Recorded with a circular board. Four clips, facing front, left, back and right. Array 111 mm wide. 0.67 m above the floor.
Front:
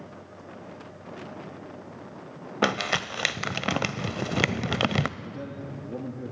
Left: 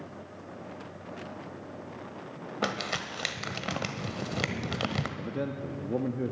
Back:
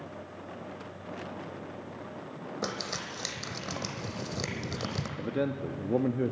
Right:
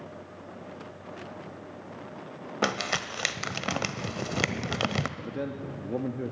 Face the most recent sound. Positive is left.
turn(degrees=175)